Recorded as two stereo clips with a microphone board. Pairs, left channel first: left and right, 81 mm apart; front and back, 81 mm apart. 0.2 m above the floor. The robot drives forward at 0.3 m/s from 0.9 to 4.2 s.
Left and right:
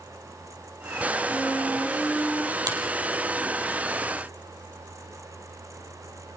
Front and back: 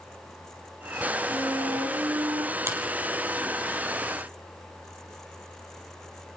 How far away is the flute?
About 5 m.